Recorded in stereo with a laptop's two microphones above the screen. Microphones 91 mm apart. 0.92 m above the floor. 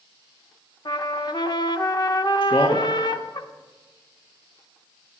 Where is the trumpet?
50° left (ahead or behind), 0.7 m.